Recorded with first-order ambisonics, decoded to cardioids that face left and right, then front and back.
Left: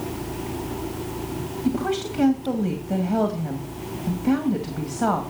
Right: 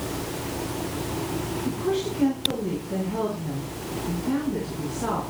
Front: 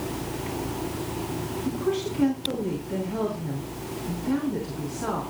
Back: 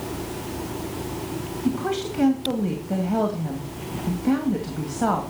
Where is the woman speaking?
140° left, 2.5 m.